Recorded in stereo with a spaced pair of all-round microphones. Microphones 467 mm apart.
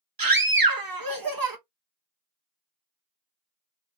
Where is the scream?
45° right (ahead or behind), 0.9 m.